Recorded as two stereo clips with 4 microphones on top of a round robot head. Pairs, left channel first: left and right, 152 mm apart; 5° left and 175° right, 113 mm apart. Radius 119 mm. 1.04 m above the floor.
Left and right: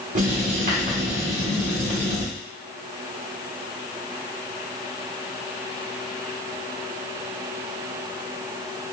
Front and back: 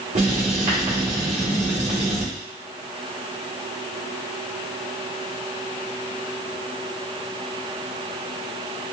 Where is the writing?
135° right, 1.6 m.